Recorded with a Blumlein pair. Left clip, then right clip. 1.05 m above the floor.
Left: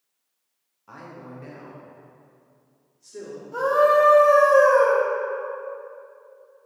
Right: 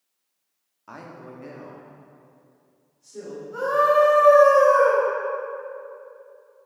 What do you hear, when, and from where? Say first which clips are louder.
0.9 s a man speaking: right 1 dB; 20° right, 0.6 m; by 3.4 s 20° left, 1.7 m
3.5 s a scream: left 1 dB; 60° left, 1.3 m